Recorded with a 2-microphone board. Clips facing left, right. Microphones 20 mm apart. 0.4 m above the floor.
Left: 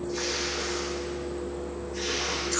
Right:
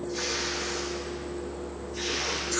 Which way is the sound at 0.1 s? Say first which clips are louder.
Even; 30° left (ahead or behind).